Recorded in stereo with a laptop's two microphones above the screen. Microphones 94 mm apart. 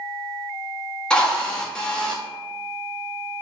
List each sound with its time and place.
1.1 s a drill: 10° left (ahead or behind), 1.9 m